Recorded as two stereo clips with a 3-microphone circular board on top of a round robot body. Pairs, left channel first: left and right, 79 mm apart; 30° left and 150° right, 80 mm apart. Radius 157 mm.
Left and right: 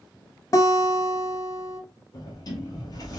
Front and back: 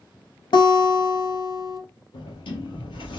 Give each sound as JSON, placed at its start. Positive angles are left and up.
{"t": 0.5, "sound": "a guitar", "azimuth_deg": 45, "distance_m": 0.8}
{"t": 2.1, "sound": "a sliding door", "azimuth_deg": 45, "distance_m": 0.9}